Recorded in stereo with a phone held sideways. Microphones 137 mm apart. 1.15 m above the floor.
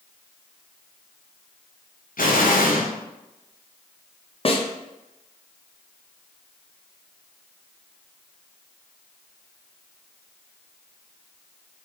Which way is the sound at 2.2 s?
75° left (ahead or behind).